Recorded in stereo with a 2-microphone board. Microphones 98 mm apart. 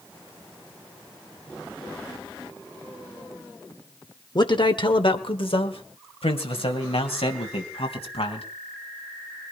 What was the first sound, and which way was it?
A man speaking, 50° left (ahead or behind).